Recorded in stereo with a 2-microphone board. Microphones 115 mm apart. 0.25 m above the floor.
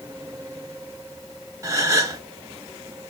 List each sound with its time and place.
1.6 s a gasp: 30° right (ahead or behind), 0.5 m